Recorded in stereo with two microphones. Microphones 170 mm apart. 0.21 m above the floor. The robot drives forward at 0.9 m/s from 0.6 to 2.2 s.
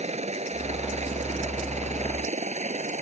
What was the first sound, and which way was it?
A helicopter, 40° right (ahead or behind).